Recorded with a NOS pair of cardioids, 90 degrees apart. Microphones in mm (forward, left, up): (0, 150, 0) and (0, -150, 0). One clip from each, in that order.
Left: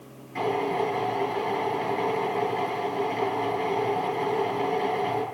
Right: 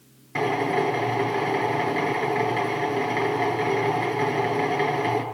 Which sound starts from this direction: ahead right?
A drill, at 0.3 s.